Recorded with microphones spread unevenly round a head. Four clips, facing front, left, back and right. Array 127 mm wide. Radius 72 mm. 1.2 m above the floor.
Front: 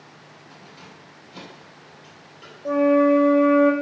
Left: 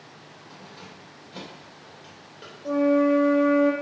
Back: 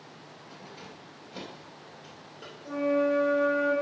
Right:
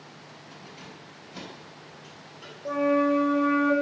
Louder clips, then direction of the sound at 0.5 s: Left 1 dB, even; 120° left.